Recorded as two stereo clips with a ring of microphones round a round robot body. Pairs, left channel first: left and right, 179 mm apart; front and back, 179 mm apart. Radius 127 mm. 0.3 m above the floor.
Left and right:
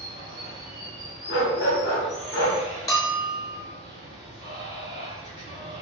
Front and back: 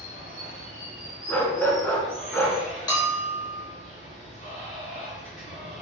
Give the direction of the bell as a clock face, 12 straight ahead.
11 o'clock.